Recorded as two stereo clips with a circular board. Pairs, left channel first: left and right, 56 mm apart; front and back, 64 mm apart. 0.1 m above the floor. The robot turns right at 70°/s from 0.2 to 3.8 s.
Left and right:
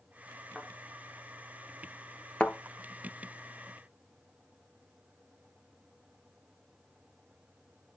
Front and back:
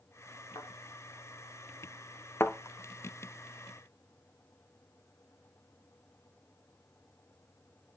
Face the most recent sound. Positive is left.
turn(degrees=125)